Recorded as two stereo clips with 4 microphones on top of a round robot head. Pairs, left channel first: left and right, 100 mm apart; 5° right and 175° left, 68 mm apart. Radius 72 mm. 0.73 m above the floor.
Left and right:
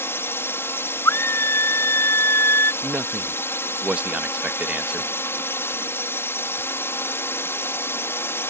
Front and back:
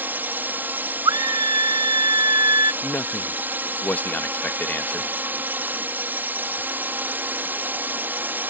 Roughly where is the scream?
Behind left.